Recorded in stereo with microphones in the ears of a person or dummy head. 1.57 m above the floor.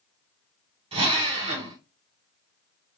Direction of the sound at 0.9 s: 35° right (ahead or behind).